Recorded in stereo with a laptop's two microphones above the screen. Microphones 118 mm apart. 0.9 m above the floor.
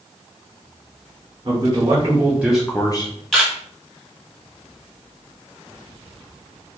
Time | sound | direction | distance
1.4 | a man speaking | 40° right (ahead or behind) | 1.4 m
3.3 | a camera shutter | 5° left (ahead or behind) | 1.3 m